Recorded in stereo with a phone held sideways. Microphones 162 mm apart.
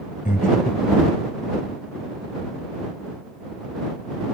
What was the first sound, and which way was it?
Breathing, 65° left (ahead or behind).